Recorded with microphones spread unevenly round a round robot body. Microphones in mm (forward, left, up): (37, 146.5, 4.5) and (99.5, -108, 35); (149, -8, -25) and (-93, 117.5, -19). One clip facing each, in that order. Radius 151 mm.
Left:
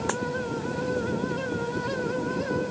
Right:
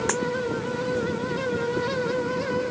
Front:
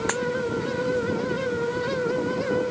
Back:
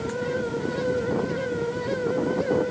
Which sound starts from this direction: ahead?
A dropped coin, at 0.1 s.